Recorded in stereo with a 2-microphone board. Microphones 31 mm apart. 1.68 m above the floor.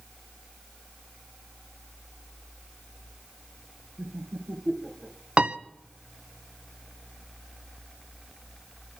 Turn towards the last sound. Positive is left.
turn(degrees=-35)  # may be behind; listen again after turning